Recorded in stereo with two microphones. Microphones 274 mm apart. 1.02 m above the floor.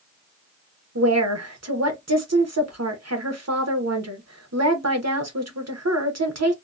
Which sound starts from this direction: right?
A woman speaking, at 0.9 s.